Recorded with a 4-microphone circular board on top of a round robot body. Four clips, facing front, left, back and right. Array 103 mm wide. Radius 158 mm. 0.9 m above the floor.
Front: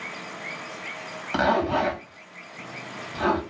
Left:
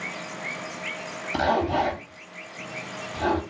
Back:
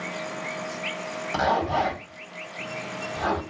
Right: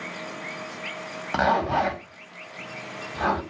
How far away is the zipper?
About 1.6 m.